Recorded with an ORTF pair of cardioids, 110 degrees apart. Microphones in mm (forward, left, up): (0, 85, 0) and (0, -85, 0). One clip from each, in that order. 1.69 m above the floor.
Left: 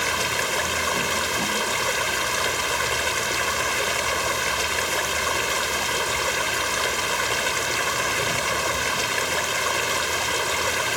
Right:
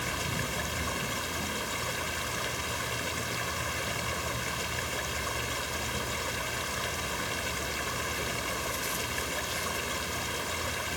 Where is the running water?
55° left.